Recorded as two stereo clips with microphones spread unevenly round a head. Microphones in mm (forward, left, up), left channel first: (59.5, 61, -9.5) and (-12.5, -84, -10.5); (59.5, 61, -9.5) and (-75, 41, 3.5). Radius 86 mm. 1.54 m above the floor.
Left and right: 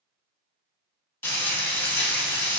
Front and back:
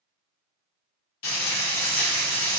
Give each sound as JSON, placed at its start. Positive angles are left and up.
{"t": 1.2, "sound": "frying", "azimuth_deg": -10, "distance_m": 3.5}